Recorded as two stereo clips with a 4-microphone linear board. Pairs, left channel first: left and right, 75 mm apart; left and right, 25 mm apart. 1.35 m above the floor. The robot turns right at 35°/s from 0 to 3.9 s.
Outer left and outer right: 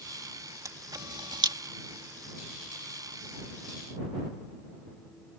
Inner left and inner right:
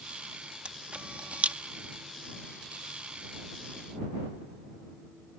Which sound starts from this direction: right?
A camera shutter, at 0.7 s.